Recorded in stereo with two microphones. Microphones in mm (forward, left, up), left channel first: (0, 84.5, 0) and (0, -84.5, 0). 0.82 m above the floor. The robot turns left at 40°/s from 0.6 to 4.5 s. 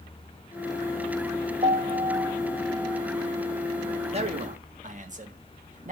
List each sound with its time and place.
1.6 s a piano: 130° right, 1.4 m; by 3.0 s 175° left, 1.4 m
4.1 s a man speaking: 40° right (ahead or behind), 1.7 m; by 5.9 s 50° right (ahead or behind), 1.7 m